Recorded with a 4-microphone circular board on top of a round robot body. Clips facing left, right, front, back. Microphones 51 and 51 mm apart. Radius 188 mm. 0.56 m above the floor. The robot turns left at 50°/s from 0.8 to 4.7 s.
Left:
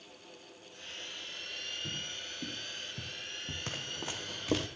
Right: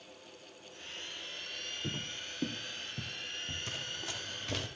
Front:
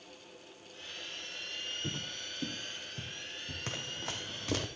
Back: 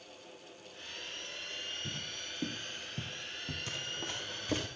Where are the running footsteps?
45° left, 1.8 m; by 4.7 s 5° right, 1.8 m.